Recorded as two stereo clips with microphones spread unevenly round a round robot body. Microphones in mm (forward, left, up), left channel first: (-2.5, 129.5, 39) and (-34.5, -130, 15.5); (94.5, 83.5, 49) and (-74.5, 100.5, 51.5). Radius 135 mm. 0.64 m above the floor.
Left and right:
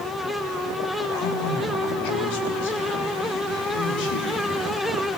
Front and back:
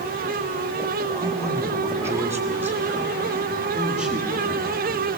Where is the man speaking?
105° left, 7 m; by 5.2 s 85° left, 10.5 m.